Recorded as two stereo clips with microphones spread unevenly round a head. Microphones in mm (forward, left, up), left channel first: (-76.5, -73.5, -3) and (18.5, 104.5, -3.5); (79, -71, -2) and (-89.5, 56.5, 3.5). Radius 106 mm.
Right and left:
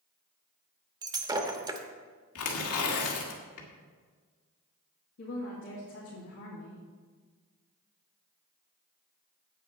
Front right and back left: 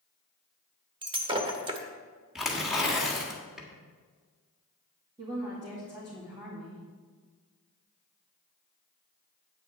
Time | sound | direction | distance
1.0 | breaking glass | 110° left | 0.9 m
2.4 | tearing paper | 130° right | 1.8 m
5.2 | a woman speaking | 145° right | 2.5 m